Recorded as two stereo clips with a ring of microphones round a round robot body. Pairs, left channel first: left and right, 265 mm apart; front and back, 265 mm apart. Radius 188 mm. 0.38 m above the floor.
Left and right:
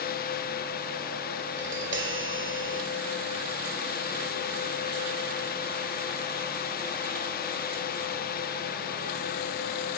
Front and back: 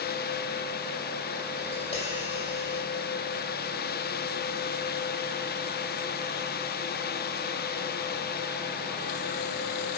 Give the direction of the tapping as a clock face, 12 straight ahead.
2 o'clock.